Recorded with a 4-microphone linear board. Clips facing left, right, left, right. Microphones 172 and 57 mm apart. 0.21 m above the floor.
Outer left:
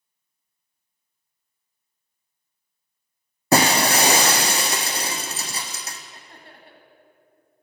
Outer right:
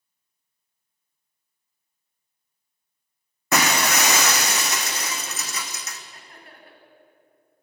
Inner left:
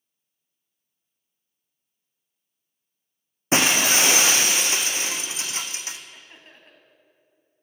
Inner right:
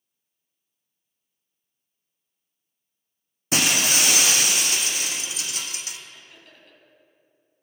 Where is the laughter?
30° left (ahead or behind), 1.5 m.